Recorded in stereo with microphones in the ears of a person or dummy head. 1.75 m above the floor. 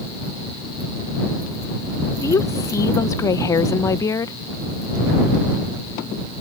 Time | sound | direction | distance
2.2 | a woman speaking | 20° left (ahead or behind) | ?